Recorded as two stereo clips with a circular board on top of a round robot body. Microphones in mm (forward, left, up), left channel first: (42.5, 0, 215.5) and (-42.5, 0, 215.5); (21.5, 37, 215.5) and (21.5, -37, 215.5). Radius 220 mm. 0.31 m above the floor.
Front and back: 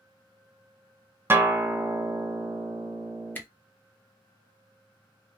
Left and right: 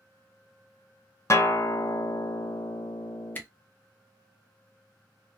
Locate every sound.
1.3 s a guitar: 125° left, 0.8 m
3.4 s a camera shutter: 50° left, 1.1 m